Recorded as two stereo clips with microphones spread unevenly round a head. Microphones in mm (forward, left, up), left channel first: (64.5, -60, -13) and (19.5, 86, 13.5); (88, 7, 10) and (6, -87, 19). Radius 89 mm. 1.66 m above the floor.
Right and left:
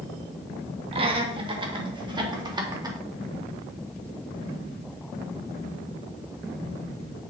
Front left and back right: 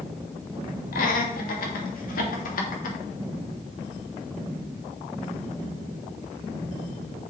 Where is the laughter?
55° left, 2.5 m; by 3.0 s 45° left, 3.5 m.